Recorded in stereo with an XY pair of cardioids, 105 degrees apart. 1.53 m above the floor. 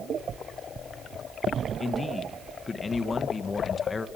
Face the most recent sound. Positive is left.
turn(degrees=30)